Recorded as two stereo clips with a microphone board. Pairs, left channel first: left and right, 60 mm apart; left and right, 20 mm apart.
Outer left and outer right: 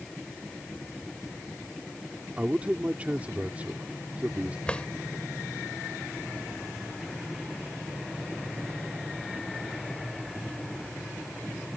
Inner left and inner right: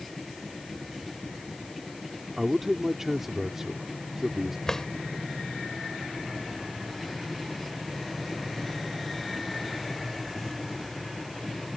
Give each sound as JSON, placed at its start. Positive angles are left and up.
{"t": 2.4, "sound": "a man speaking", "side_deg": -25}
{"t": 4.7, "sound": "a drawer", "side_deg": 20}